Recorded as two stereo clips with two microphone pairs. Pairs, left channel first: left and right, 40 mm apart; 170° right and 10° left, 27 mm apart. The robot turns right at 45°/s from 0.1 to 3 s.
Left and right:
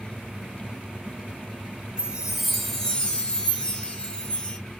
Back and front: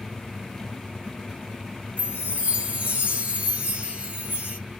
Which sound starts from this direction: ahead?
A chime, at 2.0 s.